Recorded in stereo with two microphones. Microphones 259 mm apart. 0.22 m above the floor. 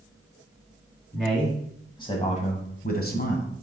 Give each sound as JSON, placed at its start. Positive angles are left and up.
{"t": 1.1, "sound": "a man speaking", "side_deg": 0, "distance_m": 1.7}